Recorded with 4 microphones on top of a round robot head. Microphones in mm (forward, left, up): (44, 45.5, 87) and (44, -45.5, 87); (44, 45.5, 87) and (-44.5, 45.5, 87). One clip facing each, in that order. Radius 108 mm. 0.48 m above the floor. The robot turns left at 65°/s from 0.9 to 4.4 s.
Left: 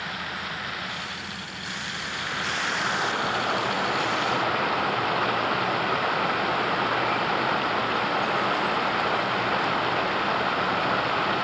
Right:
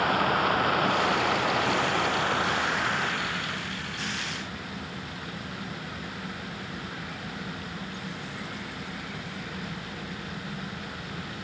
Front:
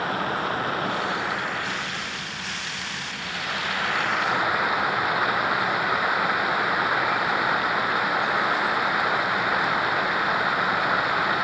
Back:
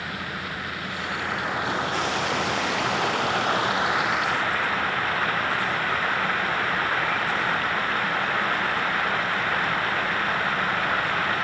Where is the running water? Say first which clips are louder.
Right 10 dB, front 7 dB; 60° right; by 11.4 s 75° left.